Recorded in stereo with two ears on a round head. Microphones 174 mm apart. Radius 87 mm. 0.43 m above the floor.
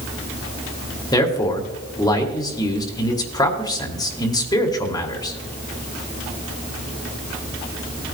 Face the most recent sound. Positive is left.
turn(degrees=20)  # may be behind; listen again after turning